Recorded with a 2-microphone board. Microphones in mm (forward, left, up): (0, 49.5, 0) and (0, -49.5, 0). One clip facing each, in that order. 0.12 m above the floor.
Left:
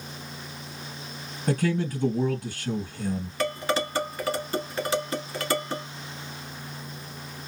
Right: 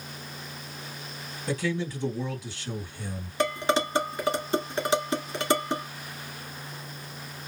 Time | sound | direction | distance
1.5 | a man speaking | 45° left (ahead or behind) | 2.5 m
3.4 | dishes clattering | 20° right (ahead or behind) | 1.0 m